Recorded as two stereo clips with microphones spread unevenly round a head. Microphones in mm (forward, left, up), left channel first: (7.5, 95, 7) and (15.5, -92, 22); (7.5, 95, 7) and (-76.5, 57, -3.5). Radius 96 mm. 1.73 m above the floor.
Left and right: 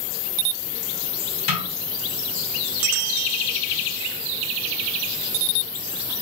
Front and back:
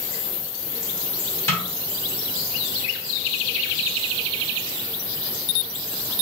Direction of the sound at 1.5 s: 65° left.